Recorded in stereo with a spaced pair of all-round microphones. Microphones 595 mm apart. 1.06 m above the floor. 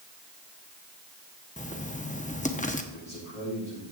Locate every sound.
1.6 s writing: 15° left (ahead or behind), 0.8 m
2.9 s a man speaking: 75° left (ahead or behind), 6.5 m